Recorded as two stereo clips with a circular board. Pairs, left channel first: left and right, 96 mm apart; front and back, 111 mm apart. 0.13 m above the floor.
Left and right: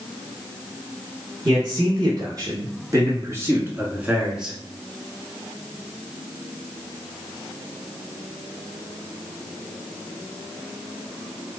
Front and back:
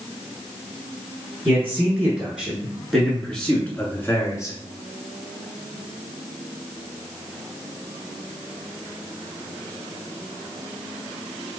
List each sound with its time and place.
1.4 s a man speaking: 115° right, 1.9 m; by 4.6 s 15° right, 1.3 m